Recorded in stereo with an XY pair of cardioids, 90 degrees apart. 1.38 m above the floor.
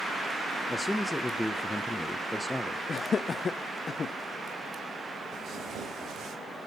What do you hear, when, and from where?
0.7 s a man speaking: 5° left, 1.0 m
2.9 s laughter: 45° left, 0.6 m
5.3 s tearing paper: 70° right, 5.5 m